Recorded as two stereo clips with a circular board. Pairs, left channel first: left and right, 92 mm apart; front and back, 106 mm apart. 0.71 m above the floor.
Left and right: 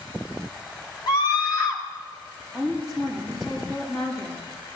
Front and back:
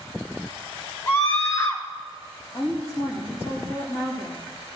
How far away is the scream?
About 2 m.